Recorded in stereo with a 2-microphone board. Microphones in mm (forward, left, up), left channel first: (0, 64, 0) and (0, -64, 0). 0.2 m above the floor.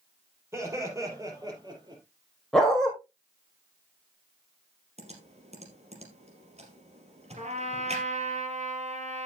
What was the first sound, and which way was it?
Laughter, 20° right (ahead or behind).